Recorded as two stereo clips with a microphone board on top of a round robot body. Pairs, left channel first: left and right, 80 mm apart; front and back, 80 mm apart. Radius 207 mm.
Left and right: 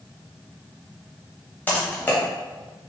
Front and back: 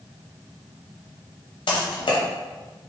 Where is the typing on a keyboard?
20° left, 0.8 m.